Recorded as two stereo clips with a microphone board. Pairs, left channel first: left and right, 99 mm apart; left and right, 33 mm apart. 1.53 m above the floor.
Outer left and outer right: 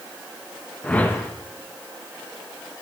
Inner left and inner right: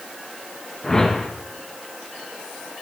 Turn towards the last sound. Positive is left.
turn(degrees=15)  # may be behind; listen again after turning